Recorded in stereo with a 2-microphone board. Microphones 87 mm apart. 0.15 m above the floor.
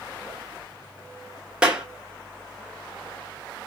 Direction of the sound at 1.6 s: 10° right (ahead or behind).